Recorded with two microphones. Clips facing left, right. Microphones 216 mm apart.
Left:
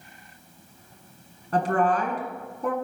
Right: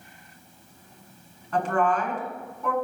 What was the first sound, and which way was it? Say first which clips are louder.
A woman speaking: left 1 dB; 40° left (ahead or behind).